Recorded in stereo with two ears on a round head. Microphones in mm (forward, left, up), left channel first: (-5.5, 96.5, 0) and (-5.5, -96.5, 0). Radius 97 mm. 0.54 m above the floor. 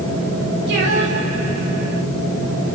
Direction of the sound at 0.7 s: 55° right (ahead or behind).